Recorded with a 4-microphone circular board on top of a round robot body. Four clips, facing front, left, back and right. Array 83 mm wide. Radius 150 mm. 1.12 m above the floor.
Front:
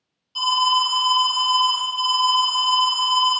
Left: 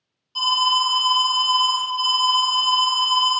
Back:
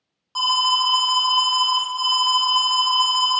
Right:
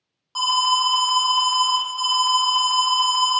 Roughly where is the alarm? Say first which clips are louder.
Right 1 dB, front 1 dB; behind right.